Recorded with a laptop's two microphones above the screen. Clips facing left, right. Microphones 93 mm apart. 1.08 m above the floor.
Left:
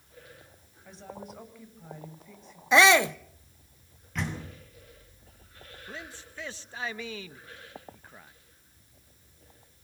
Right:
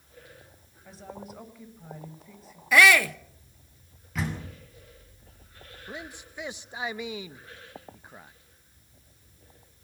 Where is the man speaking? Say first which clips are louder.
Right 3 dB; 15° right (ahead or behind), 0.8 m.